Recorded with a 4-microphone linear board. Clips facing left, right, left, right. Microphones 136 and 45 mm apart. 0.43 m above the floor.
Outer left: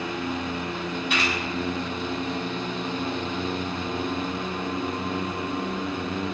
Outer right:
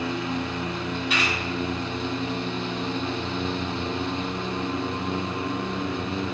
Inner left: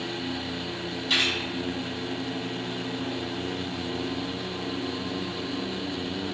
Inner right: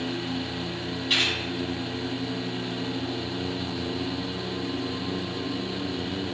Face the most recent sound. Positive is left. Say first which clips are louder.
# outer left 1 dB, even
turn(degrees=0)  # may be behind; listen again after turning